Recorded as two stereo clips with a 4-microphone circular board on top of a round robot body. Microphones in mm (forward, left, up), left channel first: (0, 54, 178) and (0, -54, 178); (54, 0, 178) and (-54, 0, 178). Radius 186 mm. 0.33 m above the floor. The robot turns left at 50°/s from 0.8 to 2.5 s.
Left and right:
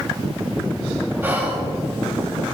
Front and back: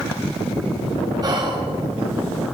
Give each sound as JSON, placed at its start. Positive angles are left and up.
{"t": 1.2, "sound": "whispering", "azimuth_deg": -150, "distance_m": 1.0}